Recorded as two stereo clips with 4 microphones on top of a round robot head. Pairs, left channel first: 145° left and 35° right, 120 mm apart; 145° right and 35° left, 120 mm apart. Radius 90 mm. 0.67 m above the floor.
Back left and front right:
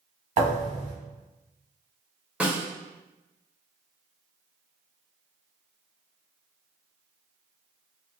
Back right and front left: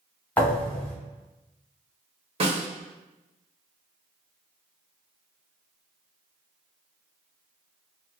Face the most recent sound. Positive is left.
turn(degrees=45)